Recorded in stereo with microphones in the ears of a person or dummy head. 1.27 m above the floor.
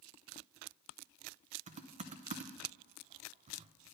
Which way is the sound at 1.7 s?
35° right (ahead or behind).